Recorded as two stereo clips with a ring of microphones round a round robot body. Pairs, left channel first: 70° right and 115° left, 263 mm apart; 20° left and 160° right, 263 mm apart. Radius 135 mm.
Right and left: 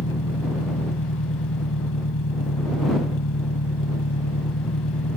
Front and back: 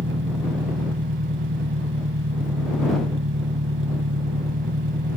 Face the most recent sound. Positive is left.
turn(degrees=-110)